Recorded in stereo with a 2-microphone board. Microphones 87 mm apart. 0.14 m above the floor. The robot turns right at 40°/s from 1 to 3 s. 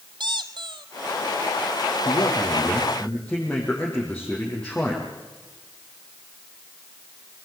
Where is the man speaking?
130° left, 6 m; by 5.1 s 165° left, 6 m.